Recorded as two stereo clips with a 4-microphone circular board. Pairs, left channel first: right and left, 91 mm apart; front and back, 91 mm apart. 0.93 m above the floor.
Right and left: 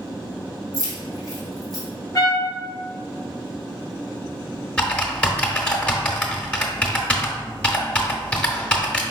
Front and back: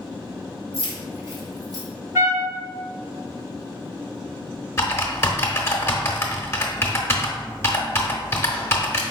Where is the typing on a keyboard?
25° right, 0.7 m.